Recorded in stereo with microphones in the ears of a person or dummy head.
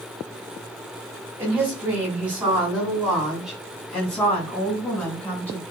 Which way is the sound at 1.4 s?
15° right (ahead or behind).